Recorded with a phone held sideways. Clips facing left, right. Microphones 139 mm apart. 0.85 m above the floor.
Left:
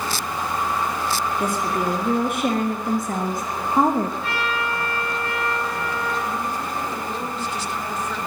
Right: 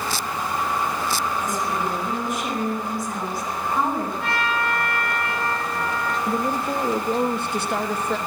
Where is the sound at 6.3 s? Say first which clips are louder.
Right 4 dB; 60° right (ahead or behind), 0.9 m.